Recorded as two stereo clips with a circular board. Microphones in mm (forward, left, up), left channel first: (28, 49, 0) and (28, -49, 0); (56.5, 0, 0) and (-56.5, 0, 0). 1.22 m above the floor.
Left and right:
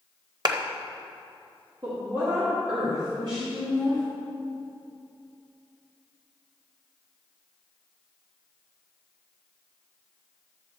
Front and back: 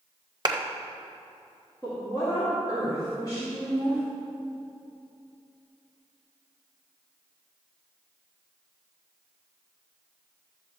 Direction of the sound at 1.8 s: 55° right.